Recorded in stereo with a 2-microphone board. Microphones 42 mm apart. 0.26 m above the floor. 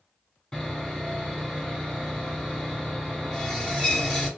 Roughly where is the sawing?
Centre.